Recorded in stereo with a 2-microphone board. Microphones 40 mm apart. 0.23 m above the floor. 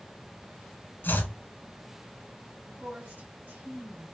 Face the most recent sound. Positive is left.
turn(degrees=-55)  # may be behind; listen again after turning